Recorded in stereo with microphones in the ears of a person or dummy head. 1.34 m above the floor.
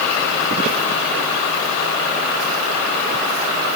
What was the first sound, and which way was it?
Only background noise.